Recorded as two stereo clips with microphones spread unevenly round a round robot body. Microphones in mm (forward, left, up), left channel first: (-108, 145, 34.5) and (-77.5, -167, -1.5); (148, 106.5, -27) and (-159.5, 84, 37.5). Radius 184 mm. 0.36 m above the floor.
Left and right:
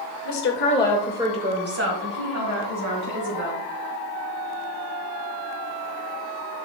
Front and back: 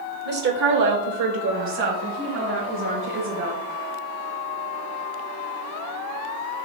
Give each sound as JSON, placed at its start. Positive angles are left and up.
{"t": 0.2, "sound": "a woman speaking", "azimuth_deg": 130, "distance_m": 1.3}